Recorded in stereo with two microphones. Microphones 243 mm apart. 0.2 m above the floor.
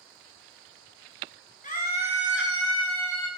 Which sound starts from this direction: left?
A scream, at 1.6 s.